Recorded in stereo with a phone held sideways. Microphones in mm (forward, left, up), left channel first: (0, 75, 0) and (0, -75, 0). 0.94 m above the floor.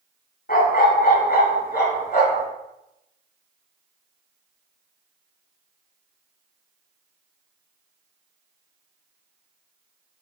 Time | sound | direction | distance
0.5 | a dog barking | 70° left (ahead or behind) | 2 m